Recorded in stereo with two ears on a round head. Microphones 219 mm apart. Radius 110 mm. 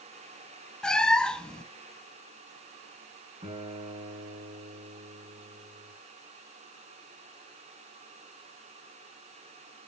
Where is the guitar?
15° right (ahead or behind), 5.5 m.